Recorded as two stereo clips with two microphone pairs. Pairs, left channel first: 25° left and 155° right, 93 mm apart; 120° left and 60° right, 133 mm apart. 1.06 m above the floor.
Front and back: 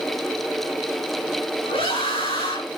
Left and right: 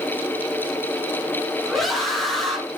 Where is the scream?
30° left, 9.5 m.